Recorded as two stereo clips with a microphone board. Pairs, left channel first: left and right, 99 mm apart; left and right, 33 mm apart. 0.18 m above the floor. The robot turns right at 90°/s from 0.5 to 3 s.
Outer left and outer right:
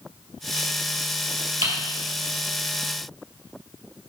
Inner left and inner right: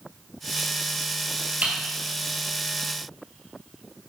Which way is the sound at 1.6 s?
65° right (ahead or behind).